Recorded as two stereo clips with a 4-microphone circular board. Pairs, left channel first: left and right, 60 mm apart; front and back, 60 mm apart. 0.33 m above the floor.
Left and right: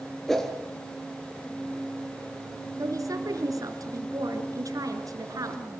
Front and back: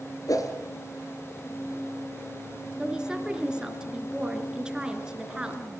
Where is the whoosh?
5° left, 3.5 m.